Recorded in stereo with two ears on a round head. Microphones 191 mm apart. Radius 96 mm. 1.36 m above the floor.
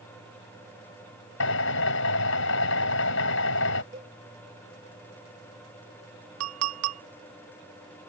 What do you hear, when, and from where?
1.4 s a drill: 60° left (ahead or behind)
3.9 s a cowbell: 40° right (ahead or behind)
6.4 s a clink: 80° right